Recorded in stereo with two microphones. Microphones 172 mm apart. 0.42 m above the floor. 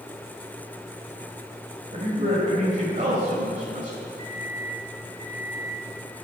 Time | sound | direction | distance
1.9 | a man speaking | 45° right (ahead or behind) | 2.0 m
4.2 | a microwave | 20° left (ahead or behind) | 1.7 m